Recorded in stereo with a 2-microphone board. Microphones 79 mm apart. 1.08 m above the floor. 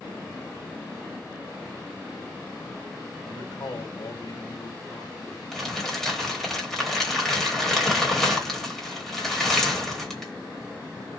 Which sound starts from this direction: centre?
Crumpling, at 5.5 s.